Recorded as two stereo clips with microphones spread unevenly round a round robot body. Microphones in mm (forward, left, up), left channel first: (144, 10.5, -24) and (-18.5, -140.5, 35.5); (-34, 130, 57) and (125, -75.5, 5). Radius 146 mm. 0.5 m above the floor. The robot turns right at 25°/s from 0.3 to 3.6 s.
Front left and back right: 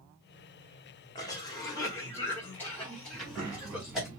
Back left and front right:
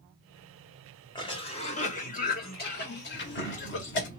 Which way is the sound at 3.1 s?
140° right.